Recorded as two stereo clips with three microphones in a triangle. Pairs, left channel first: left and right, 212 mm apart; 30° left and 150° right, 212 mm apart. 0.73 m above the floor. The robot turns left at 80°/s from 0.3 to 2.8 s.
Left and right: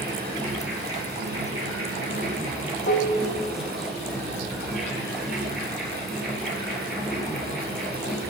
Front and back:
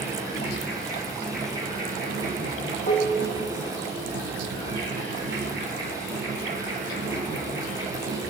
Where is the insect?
20° left, 7 m; by 8.3 s straight behind, 7 m.